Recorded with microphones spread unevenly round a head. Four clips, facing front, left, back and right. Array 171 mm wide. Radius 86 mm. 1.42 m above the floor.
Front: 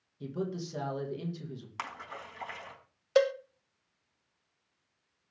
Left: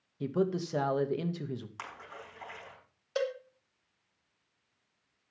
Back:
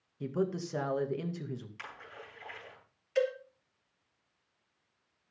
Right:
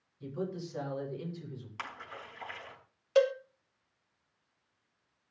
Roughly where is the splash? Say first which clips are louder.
Right 1 dB, front 6 dB; ahead.